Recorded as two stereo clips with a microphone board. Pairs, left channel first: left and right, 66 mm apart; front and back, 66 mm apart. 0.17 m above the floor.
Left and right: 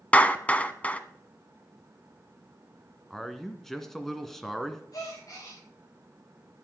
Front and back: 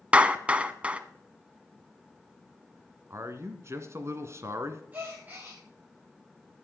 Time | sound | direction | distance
0.1 | a clap | 135° left | 0.9 m
3.1 | a man speaking | 175° left | 1.9 m
4.9 | a gasp | 120° left | 9 m